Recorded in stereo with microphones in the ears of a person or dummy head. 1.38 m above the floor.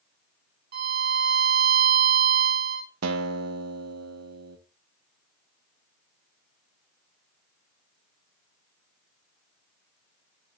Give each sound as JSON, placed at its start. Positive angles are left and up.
{"t": 0.7, "sound": "a violin", "side_deg": -50, "distance_m": 1.0}
{"t": 3.0, "sound": "a guitar", "side_deg": -85, "distance_m": 1.1}